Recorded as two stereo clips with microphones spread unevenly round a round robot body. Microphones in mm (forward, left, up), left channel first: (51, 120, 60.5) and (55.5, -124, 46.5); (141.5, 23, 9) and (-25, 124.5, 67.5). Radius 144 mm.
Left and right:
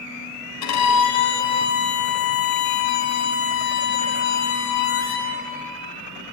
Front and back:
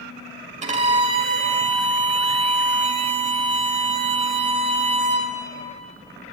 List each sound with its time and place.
0.6 s a violin: 90° left, 4.5 m